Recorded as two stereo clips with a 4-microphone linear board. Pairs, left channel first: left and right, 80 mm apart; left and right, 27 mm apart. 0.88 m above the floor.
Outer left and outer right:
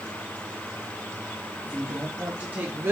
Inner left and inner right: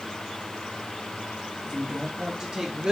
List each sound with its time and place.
1.6 s a woman speaking: 10° right (ahead or behind), 1.2 m; by 2.9 s 25° right (ahead or behind), 0.7 m